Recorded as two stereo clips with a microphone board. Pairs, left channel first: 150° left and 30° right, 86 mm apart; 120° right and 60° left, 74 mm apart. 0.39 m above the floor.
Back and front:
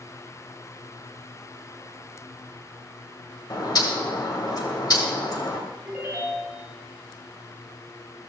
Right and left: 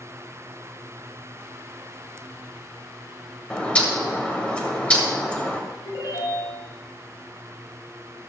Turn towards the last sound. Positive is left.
turn(degrees=-105)